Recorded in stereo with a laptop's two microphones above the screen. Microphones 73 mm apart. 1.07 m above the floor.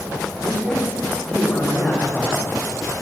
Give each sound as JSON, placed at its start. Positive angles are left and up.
{"t": 0.4, "sound": "a man speaking", "side_deg": 20, "distance_m": 3.5}